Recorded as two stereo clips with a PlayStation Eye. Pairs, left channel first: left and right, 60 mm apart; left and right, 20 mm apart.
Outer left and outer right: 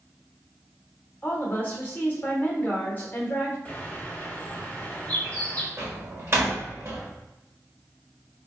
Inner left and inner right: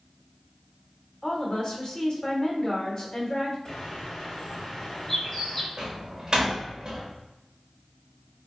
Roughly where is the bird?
Left.